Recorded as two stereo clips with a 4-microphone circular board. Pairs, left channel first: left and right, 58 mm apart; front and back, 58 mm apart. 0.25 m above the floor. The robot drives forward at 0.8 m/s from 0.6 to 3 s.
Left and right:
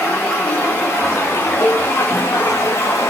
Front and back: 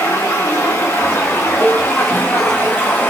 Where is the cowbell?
35° left, 3 m.